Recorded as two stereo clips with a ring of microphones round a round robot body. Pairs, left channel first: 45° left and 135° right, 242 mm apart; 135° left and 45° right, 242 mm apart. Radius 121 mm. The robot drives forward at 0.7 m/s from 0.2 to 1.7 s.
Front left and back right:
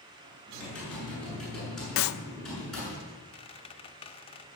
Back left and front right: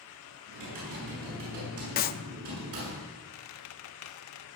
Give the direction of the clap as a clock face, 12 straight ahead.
9 o'clock.